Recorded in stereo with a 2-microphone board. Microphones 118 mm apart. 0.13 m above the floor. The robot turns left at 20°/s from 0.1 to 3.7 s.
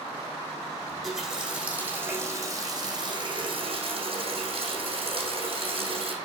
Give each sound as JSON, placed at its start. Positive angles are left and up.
{"t": 0.9, "sound": "a running tap", "azimuth_deg": 0, "distance_m": 5.0}